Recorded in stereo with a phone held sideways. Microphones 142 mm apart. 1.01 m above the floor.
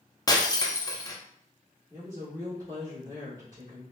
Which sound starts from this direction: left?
Breaking glass, at 0.3 s.